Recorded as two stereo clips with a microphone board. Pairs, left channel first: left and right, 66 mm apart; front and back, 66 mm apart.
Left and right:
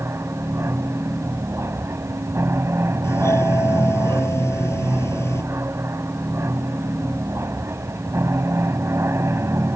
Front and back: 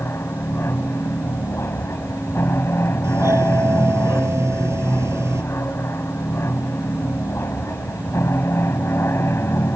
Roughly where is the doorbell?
Behind left.